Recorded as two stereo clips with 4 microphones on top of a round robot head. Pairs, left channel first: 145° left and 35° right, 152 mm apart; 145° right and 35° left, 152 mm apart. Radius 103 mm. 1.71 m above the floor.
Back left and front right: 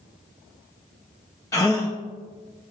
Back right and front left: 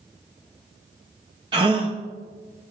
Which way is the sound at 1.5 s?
85° left.